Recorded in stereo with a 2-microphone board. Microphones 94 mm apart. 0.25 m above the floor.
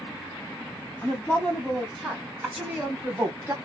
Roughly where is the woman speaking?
Centre.